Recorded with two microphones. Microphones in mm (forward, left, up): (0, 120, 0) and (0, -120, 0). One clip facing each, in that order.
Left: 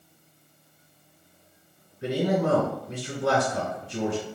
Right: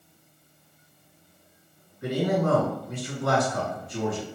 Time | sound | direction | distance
2.0 | a man speaking | 30° left (ahead or behind) | 1.8 m